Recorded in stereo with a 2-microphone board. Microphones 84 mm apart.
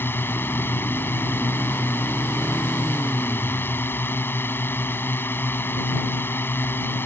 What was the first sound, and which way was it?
A drone, 25° left (ahead or behind).